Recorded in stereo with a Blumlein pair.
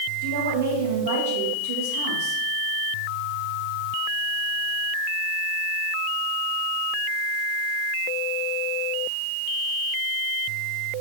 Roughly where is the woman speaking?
Ahead right.